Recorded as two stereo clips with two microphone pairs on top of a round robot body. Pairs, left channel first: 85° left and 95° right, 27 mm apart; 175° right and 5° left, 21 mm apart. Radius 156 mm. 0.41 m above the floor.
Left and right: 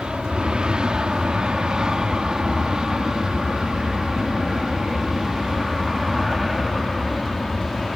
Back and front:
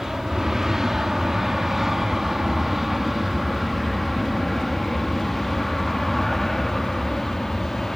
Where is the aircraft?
50° right; by 8.0 s 140° left.